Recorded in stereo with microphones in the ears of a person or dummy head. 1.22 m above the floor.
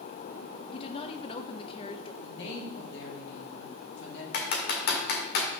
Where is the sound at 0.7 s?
20° left (ahead or behind), 0.5 m.